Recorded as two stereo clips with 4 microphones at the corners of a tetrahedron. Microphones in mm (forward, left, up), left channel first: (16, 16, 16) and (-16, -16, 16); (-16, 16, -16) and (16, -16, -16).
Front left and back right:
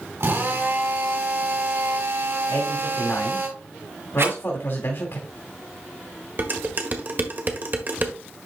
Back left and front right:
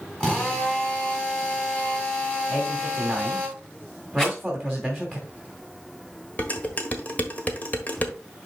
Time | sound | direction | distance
0.2 | a drill | 150° right | 3.5 m
2.5 | a man speaking | 50° left | 2.5 m
4.2 | a rattle | 150° right | 6 m
6.4 | dishes clattering | 175° right | 1.4 m